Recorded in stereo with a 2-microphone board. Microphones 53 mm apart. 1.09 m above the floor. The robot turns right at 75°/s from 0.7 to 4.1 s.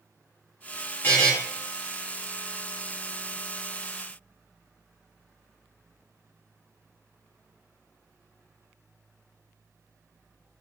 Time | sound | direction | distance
1.0 | a buzzer | 30° left (ahead or behind) | 0.8 m